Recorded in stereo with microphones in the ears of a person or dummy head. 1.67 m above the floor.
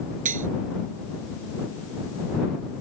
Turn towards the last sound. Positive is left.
turn(degrees=-40)  # may be behind; listen again after turning